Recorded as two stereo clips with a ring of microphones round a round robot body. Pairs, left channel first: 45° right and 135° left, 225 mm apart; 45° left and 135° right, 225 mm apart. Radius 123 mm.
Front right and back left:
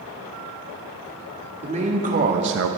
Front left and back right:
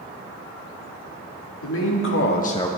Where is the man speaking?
70° left, 1.8 m; by 2.7 s 125° left, 0.6 m.